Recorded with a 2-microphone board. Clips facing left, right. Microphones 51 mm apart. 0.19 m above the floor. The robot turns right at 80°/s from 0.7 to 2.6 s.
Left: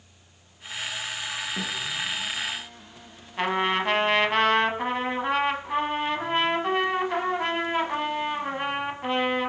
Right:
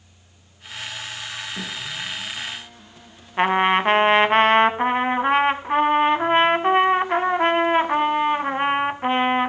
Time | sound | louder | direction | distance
1.6 | a snare drum | even | 15° left (ahead or behind) | 3.5 m
3.4 | a trumpet | right 7 dB | 35° right (ahead or behind) | 0.6 m